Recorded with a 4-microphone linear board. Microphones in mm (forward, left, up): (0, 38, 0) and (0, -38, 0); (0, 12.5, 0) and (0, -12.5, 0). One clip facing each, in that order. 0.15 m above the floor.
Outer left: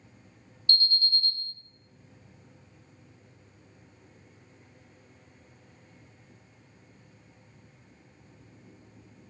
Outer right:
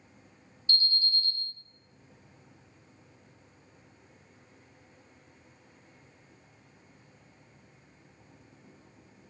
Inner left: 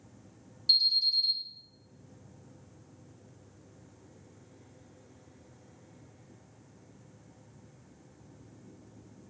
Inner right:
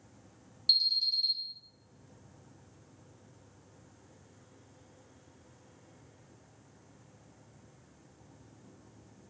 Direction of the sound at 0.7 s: 10° right (ahead or behind).